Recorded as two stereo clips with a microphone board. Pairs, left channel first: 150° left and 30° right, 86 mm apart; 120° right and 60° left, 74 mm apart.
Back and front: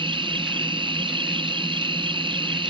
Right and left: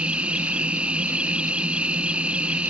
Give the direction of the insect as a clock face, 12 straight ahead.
1 o'clock.